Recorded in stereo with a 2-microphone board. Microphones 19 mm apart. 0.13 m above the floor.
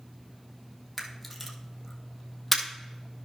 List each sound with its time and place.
1.0 s a camera shutter: 5° right (ahead or behind), 1.7 m